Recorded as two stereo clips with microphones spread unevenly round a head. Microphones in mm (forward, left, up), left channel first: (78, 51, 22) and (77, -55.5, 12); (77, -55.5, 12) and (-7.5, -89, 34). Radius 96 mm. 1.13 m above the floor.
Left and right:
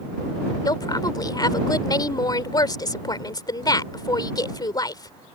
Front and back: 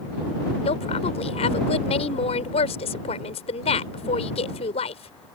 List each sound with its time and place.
0.7 s a woman speaking: 40° left